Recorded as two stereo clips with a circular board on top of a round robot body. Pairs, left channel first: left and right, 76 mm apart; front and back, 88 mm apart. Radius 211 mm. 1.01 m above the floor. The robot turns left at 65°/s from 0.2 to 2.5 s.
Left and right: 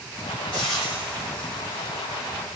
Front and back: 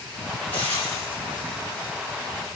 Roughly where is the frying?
Ahead.